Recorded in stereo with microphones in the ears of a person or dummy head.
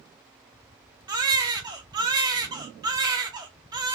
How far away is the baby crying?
About 0.7 m.